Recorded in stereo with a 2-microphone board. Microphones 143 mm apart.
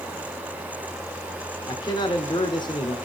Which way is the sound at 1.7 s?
30° left (ahead or behind).